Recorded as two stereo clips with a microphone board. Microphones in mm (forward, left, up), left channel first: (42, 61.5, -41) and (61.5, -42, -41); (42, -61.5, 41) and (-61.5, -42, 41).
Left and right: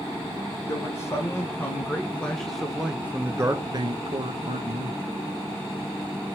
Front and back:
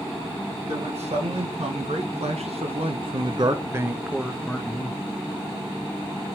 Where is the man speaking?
160° left, 1.6 m; by 5.0 s 85° right, 1.0 m.